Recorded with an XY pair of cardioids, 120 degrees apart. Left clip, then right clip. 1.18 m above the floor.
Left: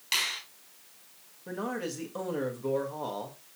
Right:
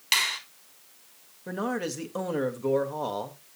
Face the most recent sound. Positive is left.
turn(degrees=-30)